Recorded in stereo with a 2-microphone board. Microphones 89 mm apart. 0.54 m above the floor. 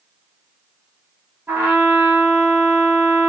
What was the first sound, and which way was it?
A trumpet, 20° right (ahead or behind).